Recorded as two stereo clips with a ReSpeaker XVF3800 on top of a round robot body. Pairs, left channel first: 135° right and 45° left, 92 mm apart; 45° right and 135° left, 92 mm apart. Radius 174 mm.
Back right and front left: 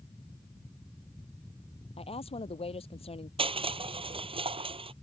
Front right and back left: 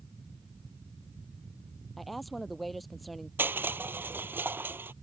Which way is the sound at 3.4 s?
65° left.